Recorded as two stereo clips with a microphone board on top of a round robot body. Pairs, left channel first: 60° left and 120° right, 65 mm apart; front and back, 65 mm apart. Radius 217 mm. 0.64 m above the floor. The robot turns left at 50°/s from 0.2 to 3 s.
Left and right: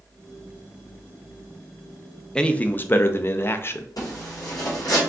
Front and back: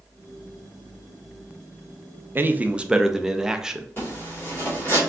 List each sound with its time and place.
2.4 s a man speaking: 135° left, 0.7 m; by 3.9 s 100° left, 0.7 m
4.0 s a zipper: 55° left, 2.5 m